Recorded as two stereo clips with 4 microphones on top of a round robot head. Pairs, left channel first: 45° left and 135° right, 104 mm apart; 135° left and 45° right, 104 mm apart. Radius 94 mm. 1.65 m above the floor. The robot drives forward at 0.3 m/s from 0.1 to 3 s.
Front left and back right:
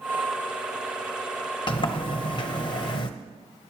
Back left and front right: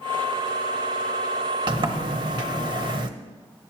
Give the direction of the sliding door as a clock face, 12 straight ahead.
12 o'clock.